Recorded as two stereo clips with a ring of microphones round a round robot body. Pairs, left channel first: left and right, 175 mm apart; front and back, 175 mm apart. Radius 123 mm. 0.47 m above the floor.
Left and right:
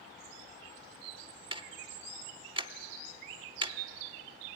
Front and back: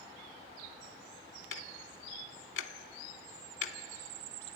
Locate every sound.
1.5 s ticking: 30° right, 0.7 m